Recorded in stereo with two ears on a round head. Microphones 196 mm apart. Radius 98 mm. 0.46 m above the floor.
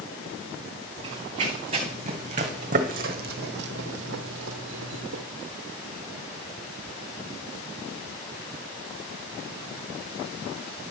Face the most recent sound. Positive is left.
turn(degrees=-55)  # may be behind; listen again after turning